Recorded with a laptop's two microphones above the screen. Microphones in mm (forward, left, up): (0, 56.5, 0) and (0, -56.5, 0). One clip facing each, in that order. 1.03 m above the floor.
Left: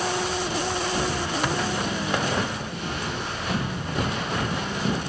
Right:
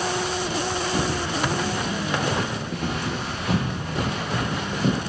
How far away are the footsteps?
About 4.5 m.